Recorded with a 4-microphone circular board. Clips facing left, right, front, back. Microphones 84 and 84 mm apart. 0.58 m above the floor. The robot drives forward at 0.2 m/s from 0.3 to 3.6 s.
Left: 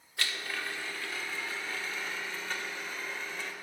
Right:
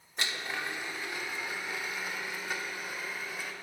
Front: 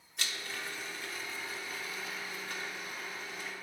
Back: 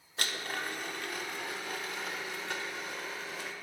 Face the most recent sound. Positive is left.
turn(degrees=-170)